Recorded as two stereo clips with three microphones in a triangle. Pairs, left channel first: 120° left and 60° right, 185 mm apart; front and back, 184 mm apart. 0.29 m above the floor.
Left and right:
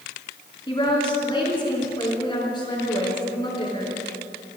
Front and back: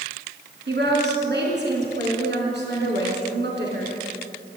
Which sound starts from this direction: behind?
A woman speaking, at 0.7 s.